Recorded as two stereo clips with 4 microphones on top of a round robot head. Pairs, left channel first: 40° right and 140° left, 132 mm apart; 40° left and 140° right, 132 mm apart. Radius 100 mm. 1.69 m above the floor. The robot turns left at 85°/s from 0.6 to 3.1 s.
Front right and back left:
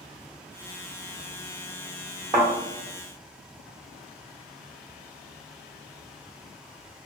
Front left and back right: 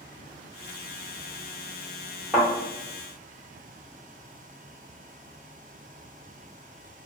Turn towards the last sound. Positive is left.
turn(degrees=70)